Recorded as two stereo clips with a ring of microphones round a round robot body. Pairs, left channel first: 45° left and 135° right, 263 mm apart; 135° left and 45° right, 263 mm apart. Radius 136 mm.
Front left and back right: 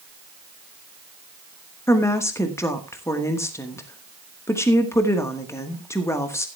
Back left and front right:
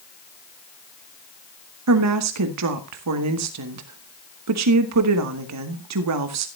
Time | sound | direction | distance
1.9 | a woman speaking | 35° right | 1.2 m